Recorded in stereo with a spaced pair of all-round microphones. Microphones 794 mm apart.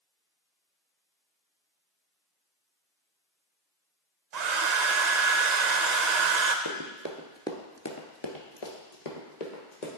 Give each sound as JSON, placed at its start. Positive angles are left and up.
{"t": 4.3, "sound": "a hair dryer", "side_deg": -60, "distance_m": 0.6}
{"t": 6.7, "sound": "running footsteps", "side_deg": -30, "distance_m": 1.1}